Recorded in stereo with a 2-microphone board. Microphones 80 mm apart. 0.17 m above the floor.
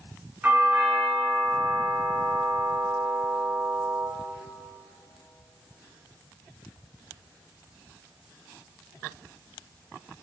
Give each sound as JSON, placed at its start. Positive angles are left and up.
{"t": 0.4, "sound": "a doorbell", "side_deg": -20, "distance_m": 3.0}